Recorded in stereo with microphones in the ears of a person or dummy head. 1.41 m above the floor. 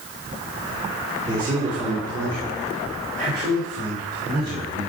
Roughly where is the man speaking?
Centre.